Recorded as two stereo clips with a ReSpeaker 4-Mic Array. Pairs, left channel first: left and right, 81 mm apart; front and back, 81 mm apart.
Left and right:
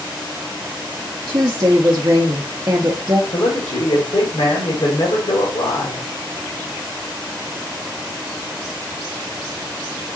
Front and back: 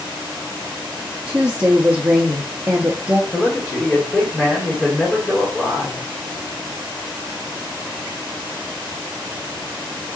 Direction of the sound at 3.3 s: 75° left.